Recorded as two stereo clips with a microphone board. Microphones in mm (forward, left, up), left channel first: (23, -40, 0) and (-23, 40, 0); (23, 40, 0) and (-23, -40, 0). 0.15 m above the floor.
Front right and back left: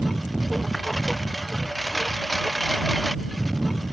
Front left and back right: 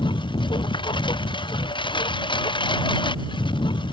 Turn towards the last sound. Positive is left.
turn(degrees=30)